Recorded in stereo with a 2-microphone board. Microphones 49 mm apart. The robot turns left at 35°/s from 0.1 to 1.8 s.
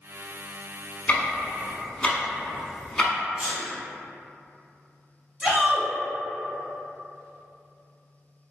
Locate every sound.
1.1 s ticking: 25° left (ahead or behind), 0.7 m; by 3.1 s 10° left (ahead or behind), 0.7 m
3.4 s a sneeze: 25° right (ahead or behind), 1.6 m
5.4 s a shout: 20° right (ahead or behind), 1.1 m